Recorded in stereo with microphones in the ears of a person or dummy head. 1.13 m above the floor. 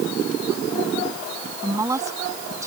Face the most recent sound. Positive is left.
turn(degrees=-20)  # may be behind; listen again after turning